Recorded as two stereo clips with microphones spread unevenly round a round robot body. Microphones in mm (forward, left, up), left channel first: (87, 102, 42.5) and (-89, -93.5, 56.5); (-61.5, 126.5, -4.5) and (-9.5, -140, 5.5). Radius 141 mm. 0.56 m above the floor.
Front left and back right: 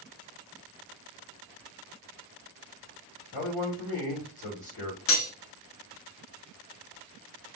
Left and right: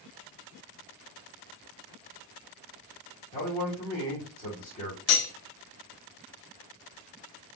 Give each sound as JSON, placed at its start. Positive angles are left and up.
{"t": 3.3, "sound": "a man speaking", "azimuth_deg": 45, "distance_m": 1.8}
{"t": 5.1, "sound": "cutlery clinking", "azimuth_deg": 75, "distance_m": 0.8}